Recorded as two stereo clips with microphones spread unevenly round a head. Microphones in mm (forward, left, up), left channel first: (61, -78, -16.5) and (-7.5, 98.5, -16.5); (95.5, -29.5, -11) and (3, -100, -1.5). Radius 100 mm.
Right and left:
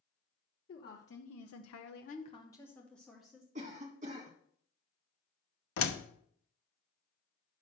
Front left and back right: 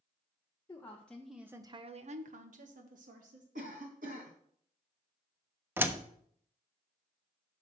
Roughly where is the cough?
Behind.